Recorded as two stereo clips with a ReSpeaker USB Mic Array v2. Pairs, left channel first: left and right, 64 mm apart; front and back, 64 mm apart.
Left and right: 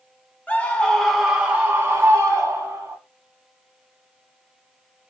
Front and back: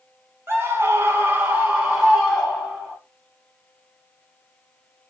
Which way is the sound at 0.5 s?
145° left.